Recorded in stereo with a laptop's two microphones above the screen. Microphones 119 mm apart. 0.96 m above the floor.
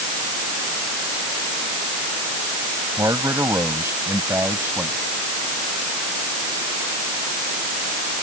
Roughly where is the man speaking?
Right.